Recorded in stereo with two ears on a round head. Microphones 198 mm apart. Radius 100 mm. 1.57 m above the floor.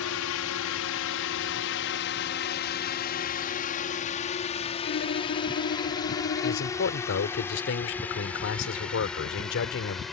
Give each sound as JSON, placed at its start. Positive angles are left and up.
{"t": 0.0, "sound": "a drone", "side_deg": 75}
{"t": 4.8, "sound": "a violin", "side_deg": 50}
{"t": 6.4, "sound": "a man speaking", "side_deg": 60}